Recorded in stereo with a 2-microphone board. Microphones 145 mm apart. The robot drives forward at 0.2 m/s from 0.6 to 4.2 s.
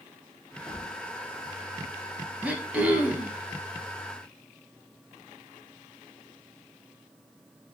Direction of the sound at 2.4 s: 10° right (ahead or behind).